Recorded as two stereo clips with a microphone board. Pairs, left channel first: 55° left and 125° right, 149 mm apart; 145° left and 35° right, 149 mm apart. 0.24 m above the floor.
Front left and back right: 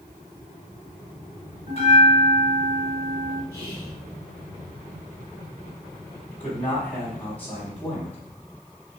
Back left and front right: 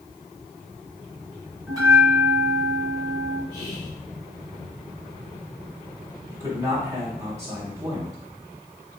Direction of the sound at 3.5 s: 75° right.